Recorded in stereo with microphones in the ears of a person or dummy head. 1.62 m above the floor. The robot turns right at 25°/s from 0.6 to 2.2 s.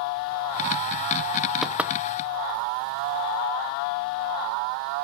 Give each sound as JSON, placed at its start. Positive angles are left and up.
{"t": 1.6, "sound": "knocking", "side_deg": 0}